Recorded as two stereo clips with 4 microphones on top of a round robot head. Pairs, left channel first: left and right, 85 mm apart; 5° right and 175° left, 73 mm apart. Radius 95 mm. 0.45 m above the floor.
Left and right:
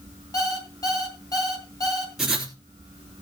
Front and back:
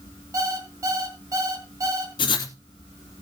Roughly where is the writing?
Ahead.